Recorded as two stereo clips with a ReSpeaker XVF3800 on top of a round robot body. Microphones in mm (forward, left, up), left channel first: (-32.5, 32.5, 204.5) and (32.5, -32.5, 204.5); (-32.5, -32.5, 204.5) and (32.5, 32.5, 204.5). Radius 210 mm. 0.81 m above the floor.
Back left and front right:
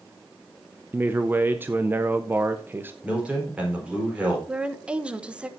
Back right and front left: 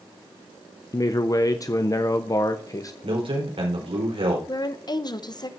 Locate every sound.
0.9 s a man speaking: 105° right, 1.0 m
3.0 s a man speaking: 30° left, 4.5 m
4.5 s a woman speaking: 120° right, 1.2 m